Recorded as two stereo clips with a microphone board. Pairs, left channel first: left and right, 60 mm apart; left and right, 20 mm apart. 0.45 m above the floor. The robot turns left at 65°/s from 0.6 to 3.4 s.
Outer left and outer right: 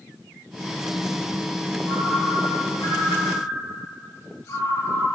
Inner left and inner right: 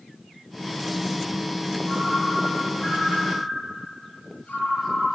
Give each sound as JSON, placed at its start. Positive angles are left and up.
{"t": 1.9, "sound": "a ringtone", "azimuth_deg": 150, "distance_m": 3.5}